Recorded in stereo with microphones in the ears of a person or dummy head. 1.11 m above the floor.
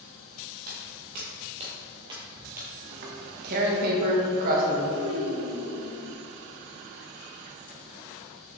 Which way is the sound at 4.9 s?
85° right.